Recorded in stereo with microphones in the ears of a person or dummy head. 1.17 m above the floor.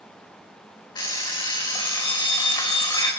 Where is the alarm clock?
30° left (ahead or behind), 3 m.